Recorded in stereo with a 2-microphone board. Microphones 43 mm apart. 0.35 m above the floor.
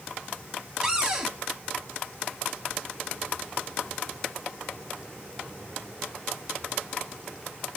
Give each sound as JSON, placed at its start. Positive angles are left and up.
{"t": 0.8, "sound": "a cupboard door", "side_deg": -20, "distance_m": 1.2}